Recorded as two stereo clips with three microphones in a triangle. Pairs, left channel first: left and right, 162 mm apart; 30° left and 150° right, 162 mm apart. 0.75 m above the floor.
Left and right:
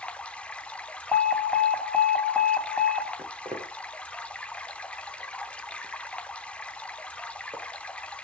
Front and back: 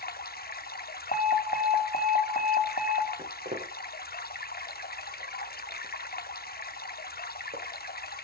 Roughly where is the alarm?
Ahead.